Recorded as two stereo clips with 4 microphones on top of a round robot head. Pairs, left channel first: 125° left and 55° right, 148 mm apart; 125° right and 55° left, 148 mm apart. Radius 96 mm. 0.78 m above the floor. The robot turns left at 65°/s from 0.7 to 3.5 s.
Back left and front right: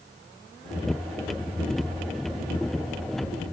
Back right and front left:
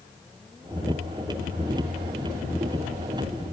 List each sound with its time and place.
Only background noise.